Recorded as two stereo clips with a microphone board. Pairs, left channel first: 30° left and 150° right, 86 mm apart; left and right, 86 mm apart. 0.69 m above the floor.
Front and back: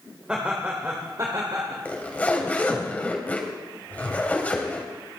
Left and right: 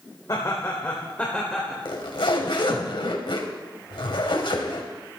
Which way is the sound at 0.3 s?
135° left.